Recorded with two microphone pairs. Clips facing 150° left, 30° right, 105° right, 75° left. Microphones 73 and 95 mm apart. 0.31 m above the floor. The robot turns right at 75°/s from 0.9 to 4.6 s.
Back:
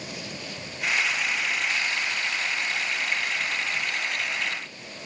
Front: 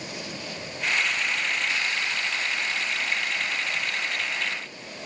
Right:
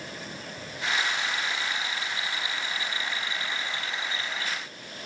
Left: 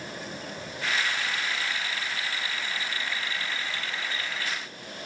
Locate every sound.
Only background noise.